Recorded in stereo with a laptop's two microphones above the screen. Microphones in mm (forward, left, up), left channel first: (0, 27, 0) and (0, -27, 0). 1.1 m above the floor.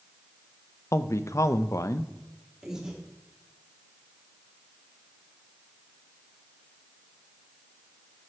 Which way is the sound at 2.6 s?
10° right (ahead or behind).